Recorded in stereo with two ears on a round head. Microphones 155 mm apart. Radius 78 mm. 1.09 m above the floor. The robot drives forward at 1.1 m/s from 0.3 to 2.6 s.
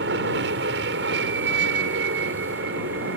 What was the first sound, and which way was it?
An aircraft, 70° right (ahead or behind).